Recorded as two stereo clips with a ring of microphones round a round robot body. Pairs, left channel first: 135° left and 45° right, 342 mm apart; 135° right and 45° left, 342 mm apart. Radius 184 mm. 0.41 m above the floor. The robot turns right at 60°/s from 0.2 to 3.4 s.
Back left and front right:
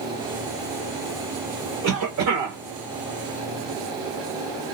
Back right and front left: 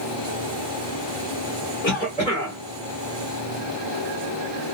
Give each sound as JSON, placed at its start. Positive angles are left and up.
{"t": 1.8, "sound": "a cough", "azimuth_deg": -90, "distance_m": 1.1}